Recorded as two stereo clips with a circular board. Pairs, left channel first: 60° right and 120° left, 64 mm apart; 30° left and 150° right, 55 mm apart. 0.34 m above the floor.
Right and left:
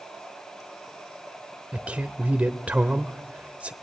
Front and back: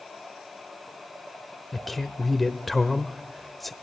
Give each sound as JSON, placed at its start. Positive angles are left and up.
{"t": 1.7, "sound": "a man speaking", "azimuth_deg": 110, "distance_m": 0.8}